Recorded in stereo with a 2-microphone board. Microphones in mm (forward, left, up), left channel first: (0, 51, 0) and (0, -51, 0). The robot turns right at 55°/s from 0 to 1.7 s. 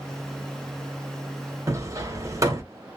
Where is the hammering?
35° right (ahead or behind), 0.6 m; by 2.6 s 30° right (ahead or behind), 0.6 m.